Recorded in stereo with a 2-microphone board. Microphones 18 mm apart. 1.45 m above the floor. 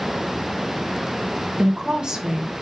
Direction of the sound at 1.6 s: 40° right (ahead or behind).